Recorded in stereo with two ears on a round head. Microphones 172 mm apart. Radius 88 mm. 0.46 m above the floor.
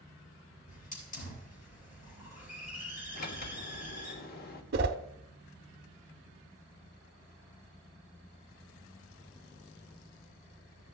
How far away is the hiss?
About 5 m.